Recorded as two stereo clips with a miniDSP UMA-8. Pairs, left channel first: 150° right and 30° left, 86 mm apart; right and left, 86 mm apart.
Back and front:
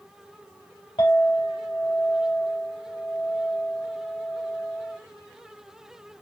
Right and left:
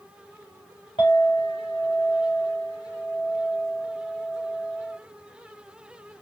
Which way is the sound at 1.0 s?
115° right.